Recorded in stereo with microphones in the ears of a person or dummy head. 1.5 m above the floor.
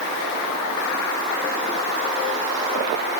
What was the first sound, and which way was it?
Only background noise.